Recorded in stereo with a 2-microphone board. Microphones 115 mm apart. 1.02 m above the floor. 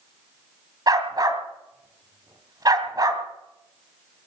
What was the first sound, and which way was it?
A dog barking, 40° right (ahead or behind).